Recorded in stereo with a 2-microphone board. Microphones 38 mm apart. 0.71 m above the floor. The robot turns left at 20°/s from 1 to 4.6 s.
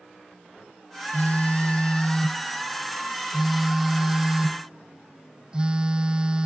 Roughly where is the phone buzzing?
Ahead left.